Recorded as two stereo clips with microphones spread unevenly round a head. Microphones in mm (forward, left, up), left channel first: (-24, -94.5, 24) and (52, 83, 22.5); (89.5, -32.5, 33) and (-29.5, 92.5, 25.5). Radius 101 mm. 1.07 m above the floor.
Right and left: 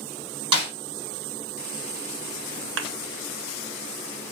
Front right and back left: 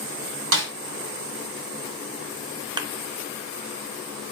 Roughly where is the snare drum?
Behind left.